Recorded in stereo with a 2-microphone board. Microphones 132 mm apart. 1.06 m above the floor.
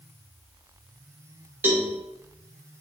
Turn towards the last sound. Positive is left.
turn(degrees=-15)  # may be behind; listen again after turning